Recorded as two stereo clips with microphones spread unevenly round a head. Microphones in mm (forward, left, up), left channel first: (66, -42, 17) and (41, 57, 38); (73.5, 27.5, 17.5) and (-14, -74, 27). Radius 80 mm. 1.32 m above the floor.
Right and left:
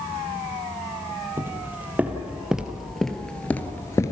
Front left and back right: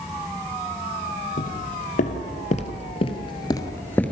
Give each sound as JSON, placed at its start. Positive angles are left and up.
{"t": 1.4, "sound": "footsteps", "azimuth_deg": 45, "distance_m": 2.5}